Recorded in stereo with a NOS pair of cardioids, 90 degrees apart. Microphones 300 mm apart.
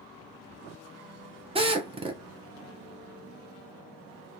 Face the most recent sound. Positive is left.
turn(degrees=-20)